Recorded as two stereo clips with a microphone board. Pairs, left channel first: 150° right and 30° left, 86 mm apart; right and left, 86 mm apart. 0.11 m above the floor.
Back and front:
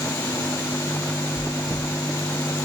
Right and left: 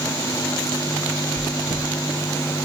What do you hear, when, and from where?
1.4 s chewing: 125° left, 3.5 m